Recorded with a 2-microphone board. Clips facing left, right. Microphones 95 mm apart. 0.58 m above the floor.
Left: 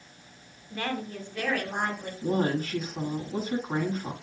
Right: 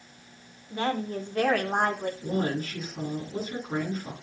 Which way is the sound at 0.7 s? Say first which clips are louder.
Right 4 dB; 25° right (ahead or behind).